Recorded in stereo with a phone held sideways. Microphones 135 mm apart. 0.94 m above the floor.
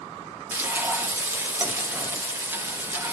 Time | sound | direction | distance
0.5 | frying | 15° right (ahead or behind) | 1.7 m